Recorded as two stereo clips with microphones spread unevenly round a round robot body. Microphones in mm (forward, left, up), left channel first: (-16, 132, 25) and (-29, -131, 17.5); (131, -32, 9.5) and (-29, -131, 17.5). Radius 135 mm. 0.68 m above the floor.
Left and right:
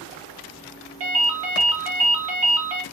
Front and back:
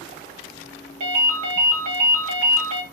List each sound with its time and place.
1.0 s a ringtone: 135° right, 0.7 m